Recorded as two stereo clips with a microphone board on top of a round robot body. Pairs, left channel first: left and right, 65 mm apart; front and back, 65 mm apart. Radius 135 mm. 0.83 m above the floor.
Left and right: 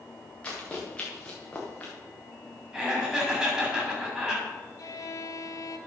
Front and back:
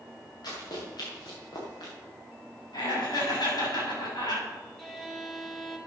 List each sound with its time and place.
0.4 s running footsteps: 20° left, 6 m
2.7 s laughter: 10° right, 7 m
4.8 s a violin: 85° left, 1.6 m